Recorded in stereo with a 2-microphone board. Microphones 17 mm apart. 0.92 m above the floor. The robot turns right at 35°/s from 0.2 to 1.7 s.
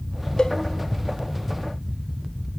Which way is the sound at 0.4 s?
45° left (ahead or behind).